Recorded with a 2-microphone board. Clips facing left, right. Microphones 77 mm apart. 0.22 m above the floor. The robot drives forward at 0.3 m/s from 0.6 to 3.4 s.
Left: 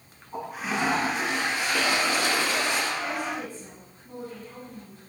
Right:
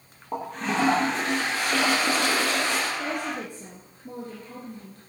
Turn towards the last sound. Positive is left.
turn(degrees=-60)  # may be behind; listen again after turning